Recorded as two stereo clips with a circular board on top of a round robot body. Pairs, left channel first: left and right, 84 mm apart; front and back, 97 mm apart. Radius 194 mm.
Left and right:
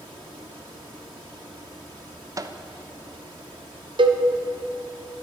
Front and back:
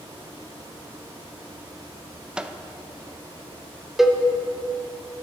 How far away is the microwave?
About 0.7 m.